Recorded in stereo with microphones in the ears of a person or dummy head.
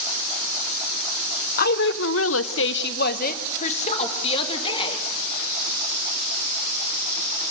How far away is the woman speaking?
About 1.1 m.